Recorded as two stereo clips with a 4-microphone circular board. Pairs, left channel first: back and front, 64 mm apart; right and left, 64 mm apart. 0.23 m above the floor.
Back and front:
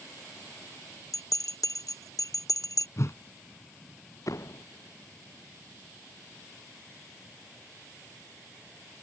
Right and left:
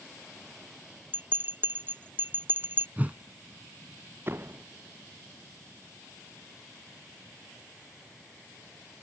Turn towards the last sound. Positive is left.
turn(degrees=145)